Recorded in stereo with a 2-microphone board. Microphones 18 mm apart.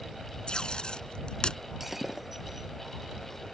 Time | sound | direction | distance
0.5 | tape being pulled | 55° left (ahead or behind) | ?
1.8 | breaking glass | 10° right (ahead or behind) | ?